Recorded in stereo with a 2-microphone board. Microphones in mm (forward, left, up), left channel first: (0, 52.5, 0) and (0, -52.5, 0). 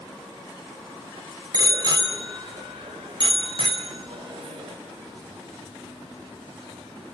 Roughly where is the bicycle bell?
Right.